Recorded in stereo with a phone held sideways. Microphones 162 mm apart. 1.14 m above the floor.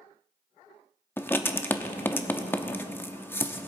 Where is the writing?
15° left (ahead or behind), 0.7 m.